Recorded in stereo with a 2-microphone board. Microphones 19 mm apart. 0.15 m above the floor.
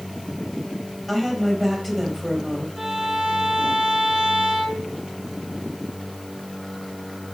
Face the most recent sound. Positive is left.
turn(degrees=-35)  # may be behind; listen again after turning